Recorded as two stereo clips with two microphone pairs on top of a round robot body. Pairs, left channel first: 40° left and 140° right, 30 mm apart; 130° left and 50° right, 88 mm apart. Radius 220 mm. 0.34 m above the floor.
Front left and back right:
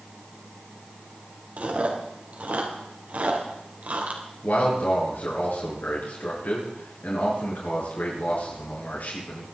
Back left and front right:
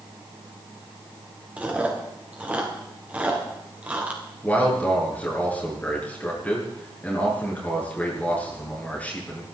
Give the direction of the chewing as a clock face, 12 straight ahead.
4 o'clock.